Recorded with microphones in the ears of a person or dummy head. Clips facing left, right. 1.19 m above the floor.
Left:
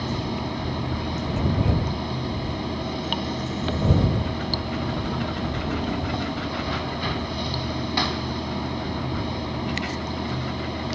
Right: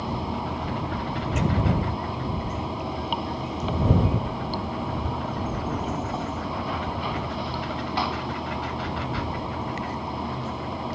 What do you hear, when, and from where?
0.0 s running water: 20° left (ahead or behind)